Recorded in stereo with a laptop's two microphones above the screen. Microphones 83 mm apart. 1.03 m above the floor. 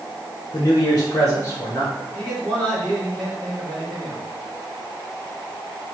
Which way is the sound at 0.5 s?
50° left (ahead or behind).